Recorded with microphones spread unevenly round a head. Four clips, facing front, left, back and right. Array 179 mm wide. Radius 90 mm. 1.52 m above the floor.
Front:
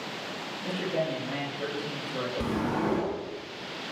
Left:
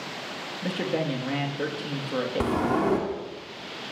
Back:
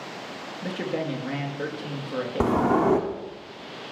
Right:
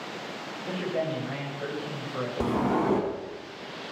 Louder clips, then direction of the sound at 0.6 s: Left 2 dB, back 1 dB; 120° left.